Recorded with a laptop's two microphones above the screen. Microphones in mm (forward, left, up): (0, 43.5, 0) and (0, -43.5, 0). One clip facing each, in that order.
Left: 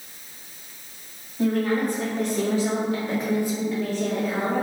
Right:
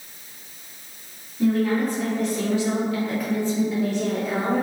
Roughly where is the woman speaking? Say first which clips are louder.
Right 2 dB; left.